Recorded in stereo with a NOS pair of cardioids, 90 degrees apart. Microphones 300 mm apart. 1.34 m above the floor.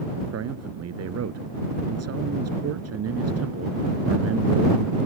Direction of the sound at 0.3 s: 60° right.